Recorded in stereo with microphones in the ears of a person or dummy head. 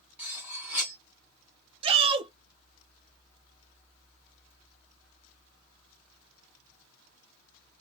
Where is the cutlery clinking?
5° right (ahead or behind), 1.3 m.